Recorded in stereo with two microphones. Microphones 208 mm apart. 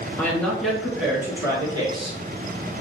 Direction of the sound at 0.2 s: 10° left (ahead or behind).